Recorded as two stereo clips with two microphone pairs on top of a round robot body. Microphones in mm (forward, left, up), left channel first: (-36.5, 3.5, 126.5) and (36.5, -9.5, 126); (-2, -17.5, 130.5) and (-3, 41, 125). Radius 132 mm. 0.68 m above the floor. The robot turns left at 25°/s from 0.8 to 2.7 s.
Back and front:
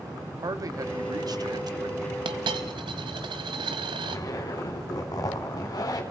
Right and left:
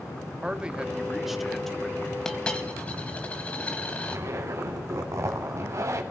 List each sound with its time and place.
0.4 s a man speaking: 20° left, 1.7 m; by 2.1 s 15° right, 1.7 m
2.2 s a dropped coin: 10° right, 0.8 m; by 4.2 s 25° right, 0.8 m
4.0 s a zipper: 130° left, 2 m